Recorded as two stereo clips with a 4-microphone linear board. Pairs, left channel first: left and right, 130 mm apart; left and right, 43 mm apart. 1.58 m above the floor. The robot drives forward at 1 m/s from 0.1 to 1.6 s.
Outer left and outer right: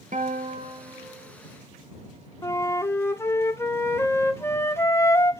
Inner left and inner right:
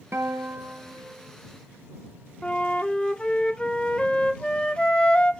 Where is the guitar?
65° right (ahead or behind), 0.9 m; by 1.4 s 30° right (ahead or behind), 1.8 m.